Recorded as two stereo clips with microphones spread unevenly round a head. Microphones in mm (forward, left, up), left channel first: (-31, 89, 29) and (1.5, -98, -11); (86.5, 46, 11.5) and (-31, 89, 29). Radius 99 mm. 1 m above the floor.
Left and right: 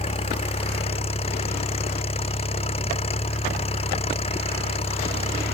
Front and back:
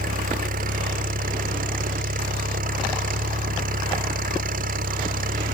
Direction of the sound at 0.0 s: 160° left.